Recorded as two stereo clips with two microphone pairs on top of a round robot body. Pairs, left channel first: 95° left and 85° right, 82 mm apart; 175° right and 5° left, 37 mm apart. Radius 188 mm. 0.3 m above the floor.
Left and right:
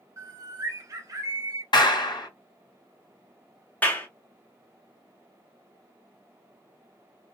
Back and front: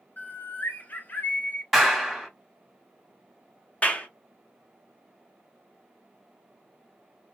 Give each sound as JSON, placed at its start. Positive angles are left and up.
{"t": 0.2, "sound": "a bird", "azimuth_deg": -140, "distance_m": 0.7}
{"t": 1.7, "sound": "a clap", "azimuth_deg": 85, "distance_m": 1.7}
{"t": 3.8, "sound": "a clap", "azimuth_deg": 150, "distance_m": 1.2}